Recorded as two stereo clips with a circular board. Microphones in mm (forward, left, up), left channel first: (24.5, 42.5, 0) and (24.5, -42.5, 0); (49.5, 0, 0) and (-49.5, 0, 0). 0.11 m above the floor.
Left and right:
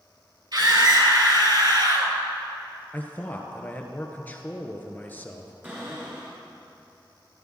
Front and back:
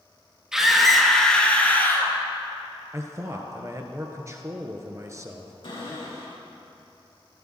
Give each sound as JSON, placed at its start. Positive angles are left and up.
{"t": 0.5, "sound": "a scream", "azimuth_deg": -100, "distance_m": 2.5}
{"t": 2.9, "sound": "a man speaking", "azimuth_deg": 145, "distance_m": 1.4}
{"t": 5.6, "sound": "a cupboard door", "azimuth_deg": -25, "distance_m": 5.0}